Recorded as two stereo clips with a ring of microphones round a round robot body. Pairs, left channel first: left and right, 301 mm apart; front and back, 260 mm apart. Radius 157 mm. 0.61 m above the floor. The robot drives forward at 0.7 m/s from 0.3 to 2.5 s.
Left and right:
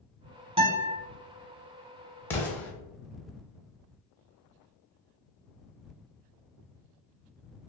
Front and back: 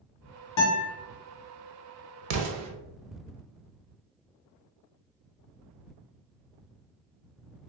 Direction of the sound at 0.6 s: 20° right.